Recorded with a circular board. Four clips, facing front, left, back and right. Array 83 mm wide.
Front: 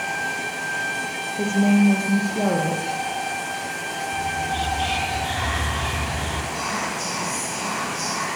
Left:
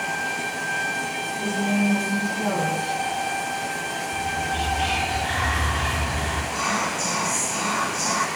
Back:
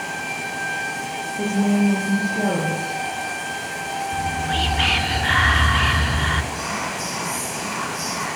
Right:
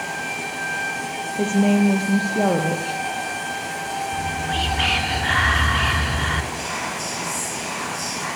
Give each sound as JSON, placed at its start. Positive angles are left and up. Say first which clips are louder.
{"t": 1.4, "sound": "a woman speaking", "louder": "right 6 dB, front 1 dB", "azimuth_deg": -75, "distance_m": 7.5}
{"t": 4.1, "sound": "whispering", "louder": "left 1 dB, back 1 dB", "azimuth_deg": -145, "distance_m": 3.5}
{"t": 6.5, "sound": "whispering", "louder": "left 3 dB, even", "azimuth_deg": 75, "distance_m": 9.5}